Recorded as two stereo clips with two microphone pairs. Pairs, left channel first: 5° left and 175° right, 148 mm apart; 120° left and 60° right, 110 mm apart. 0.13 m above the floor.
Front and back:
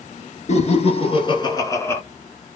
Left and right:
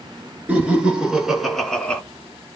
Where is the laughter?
15° left, 1.8 m; by 2.0 s 60° left, 1.2 m.